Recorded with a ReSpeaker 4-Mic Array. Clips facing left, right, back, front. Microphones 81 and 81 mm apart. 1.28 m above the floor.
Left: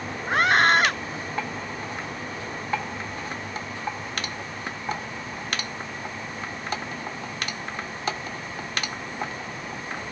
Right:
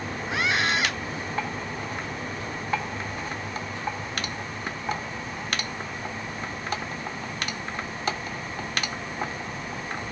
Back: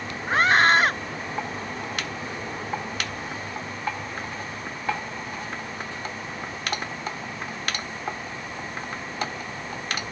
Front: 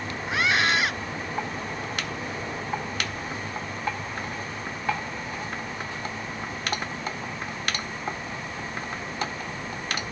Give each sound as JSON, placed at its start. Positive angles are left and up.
{"t": 0.3, "sound": "a scream", "azimuth_deg": 135}